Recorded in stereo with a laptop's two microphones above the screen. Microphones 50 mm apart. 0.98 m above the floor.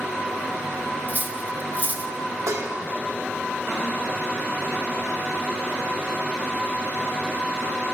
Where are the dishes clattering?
80° right, 1.2 m.